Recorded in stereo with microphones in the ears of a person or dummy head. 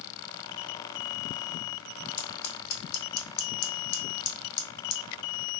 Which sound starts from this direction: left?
Scissors, at 2.2 s.